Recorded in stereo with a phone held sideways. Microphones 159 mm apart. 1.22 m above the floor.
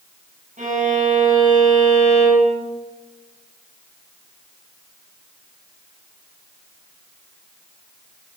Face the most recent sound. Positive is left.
turn(degrees=-50)  # may be behind; listen again after turning